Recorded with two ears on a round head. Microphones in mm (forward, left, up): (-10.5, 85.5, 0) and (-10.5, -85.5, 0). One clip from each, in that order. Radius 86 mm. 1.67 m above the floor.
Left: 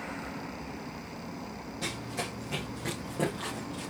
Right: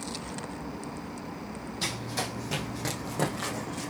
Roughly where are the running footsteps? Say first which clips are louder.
Right 3 dB; right.